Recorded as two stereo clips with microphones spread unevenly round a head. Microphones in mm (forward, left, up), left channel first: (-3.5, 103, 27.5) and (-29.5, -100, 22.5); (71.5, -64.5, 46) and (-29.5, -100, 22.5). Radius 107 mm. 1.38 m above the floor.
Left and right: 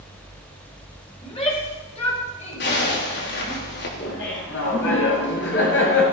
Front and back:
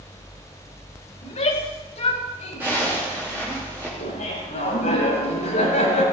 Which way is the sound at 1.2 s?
20° left.